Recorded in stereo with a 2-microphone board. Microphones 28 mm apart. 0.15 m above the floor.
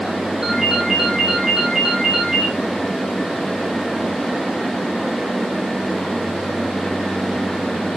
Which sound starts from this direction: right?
A ringtone, at 0.4 s.